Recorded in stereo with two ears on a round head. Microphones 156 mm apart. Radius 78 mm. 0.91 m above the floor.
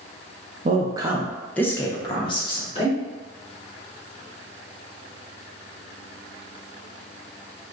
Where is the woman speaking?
40° right (ahead or behind), 0.5 m; by 3.0 s 35° left (ahead or behind), 1.3 m.